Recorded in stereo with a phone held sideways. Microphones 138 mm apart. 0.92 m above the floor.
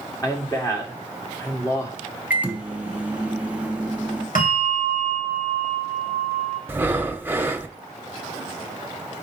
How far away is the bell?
About 3 m.